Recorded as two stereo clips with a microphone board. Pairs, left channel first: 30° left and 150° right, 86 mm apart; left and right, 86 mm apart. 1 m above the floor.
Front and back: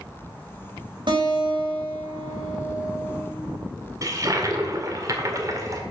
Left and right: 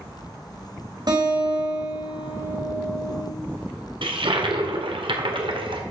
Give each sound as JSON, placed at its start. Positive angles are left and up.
{"t": 1.1, "sound": "a guitar", "azimuth_deg": -125, "distance_m": 4.0}
{"t": 4.0, "sound": "a toilet flushing", "azimuth_deg": -100, "distance_m": 1.7}